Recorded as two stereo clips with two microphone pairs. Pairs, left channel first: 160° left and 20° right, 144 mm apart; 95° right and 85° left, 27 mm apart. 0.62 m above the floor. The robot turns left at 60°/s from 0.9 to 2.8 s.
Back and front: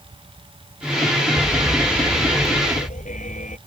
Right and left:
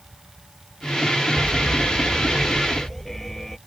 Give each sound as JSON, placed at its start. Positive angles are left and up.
{"t": 1.4, "sound": "an alarm", "azimuth_deg": -85}